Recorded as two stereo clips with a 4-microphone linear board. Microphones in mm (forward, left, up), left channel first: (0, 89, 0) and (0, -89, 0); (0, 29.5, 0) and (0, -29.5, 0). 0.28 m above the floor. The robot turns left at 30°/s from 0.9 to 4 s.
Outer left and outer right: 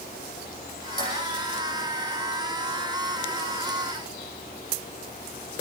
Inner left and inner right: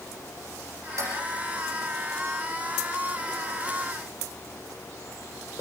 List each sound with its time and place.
1.0 s dishes clattering: 55° right (ahead or behind), 9 m; by 1.2 s 60° right (ahead or behind), 9 m